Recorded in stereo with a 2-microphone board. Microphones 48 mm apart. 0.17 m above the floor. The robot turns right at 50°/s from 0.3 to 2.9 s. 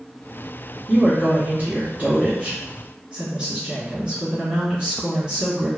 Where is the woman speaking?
20° right (ahead or behind), 1.7 m; by 5.7 s 15° right (ahead or behind), 1.7 m.